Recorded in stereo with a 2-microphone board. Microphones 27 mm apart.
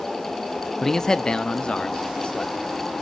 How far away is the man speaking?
About 0.5 m.